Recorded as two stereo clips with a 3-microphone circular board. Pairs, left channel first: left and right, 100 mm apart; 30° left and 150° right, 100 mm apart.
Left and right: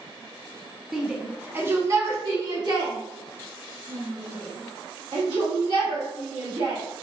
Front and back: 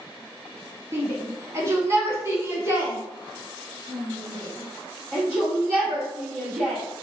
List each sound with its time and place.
0.9 s a shout: 170° right, 1.1 m; by 6.8 s 80° right, 4 m